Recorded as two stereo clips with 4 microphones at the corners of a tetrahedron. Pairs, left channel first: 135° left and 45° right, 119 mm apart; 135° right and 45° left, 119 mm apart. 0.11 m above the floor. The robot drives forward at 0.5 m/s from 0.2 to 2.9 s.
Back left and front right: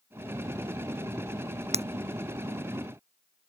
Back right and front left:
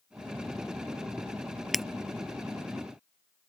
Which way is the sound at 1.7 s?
45° right.